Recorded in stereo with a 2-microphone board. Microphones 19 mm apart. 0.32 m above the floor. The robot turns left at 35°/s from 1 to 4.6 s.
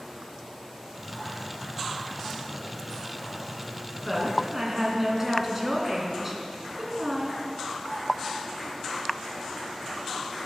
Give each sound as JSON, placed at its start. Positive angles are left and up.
{"t": 4.0, "sound": "a woman speaking", "side_deg": 10, "distance_m": 3.0}